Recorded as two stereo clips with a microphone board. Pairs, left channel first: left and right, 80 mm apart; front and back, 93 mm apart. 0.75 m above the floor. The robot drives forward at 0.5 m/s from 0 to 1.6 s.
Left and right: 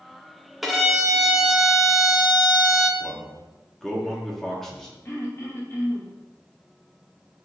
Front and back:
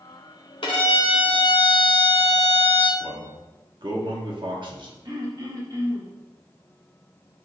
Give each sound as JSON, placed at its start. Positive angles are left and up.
{"t": 0.6, "sound": "a violin", "azimuth_deg": -5, "distance_m": 1.5}
{"t": 3.0, "sound": "a man speaking", "azimuth_deg": 175, "distance_m": 1.3}
{"t": 5.0, "sound": "throat clearing", "azimuth_deg": 145, "distance_m": 2.5}